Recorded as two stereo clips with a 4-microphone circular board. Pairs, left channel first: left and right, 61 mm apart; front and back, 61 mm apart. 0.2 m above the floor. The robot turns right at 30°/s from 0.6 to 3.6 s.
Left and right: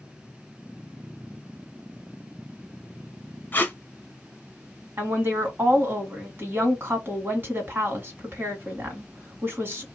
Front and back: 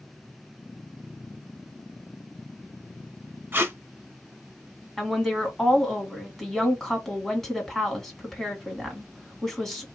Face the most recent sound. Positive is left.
turn(degrees=-80)